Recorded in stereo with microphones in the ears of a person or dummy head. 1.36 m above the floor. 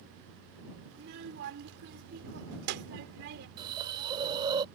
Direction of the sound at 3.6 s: 25° right (ahead or behind).